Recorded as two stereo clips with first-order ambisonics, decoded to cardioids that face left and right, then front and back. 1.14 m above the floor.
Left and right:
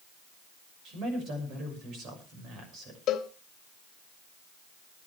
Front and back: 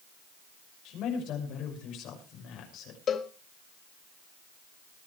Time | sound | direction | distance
0.8 | a man speaking | 40° right | 6 m
3.1 | a cowbell | 50° left | 1.3 m